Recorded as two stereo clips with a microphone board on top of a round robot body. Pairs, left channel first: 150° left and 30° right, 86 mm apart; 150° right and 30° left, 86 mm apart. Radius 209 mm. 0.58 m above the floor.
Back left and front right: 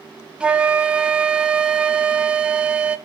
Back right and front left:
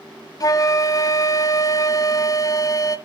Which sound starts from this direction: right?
A flute, at 0.4 s.